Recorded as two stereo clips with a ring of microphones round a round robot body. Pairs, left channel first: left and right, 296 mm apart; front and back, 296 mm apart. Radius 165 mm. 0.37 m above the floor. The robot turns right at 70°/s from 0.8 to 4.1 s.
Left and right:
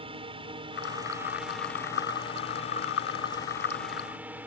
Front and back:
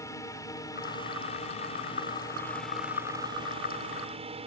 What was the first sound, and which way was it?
A drone, 60° right.